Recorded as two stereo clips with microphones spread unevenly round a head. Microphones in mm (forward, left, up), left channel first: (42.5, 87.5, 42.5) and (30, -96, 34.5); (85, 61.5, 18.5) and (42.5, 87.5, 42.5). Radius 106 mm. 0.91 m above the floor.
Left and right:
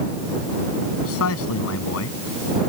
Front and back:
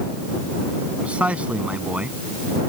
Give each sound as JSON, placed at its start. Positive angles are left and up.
{"t": 1.0, "sound": "a man speaking", "azimuth_deg": 85}